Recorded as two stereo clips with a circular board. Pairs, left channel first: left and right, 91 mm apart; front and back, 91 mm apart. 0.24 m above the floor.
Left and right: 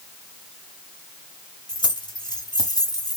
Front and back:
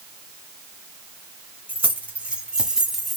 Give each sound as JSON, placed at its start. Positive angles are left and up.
{"t": 1.7, "sound": "keys jangling", "azimuth_deg": 110, "distance_m": 1.6}